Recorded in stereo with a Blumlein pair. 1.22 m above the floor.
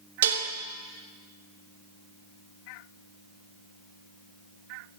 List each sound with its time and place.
0.2 s dishes clattering: 60° right, 1.1 m